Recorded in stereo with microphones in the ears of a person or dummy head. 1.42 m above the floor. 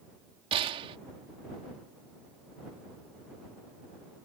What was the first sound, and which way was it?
A gunshot, 25° right (ahead or behind).